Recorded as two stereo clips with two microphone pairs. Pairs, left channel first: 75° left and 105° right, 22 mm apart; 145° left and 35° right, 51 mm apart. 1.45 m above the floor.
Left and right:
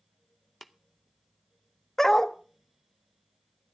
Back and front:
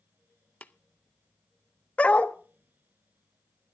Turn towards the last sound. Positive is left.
turn(degrees=120)